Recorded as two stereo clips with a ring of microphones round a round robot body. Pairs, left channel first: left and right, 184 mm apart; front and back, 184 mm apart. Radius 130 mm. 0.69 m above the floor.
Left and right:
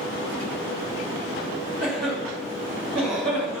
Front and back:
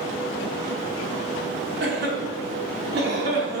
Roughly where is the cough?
Behind.